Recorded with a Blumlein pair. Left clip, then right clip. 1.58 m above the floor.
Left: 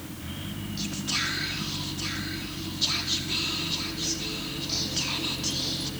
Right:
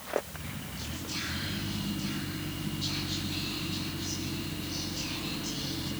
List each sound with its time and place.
0.8 s whispering: 30° left, 4 m